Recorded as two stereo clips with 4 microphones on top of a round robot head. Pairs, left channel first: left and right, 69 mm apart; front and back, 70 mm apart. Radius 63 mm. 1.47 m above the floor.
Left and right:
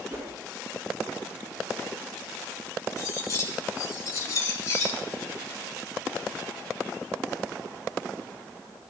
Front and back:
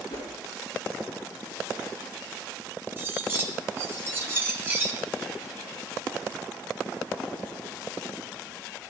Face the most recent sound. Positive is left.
turn(degrees=125)